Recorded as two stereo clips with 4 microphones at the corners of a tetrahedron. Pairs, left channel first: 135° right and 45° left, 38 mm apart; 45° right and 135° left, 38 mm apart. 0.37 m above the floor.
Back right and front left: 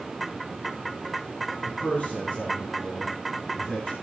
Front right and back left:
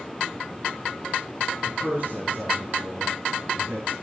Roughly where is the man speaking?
Behind.